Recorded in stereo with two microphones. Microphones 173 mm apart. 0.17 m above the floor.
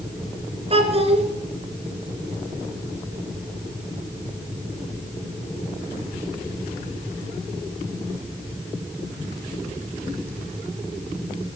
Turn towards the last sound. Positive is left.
turn(degrees=-35)  # may be behind; listen again after turning